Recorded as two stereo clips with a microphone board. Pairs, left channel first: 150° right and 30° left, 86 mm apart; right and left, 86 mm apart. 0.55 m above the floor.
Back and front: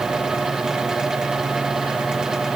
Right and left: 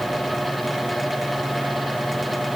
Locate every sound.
Only background noise.